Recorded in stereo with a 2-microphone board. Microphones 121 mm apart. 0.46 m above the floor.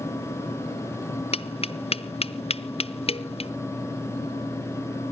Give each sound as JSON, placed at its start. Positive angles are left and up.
{"t": 1.3, "sound": "tapping", "side_deg": 55, "distance_m": 0.5}